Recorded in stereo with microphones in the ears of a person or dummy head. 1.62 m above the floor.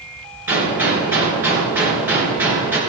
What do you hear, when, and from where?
0.5 s a gunshot: 15° right (ahead or behind), 4 m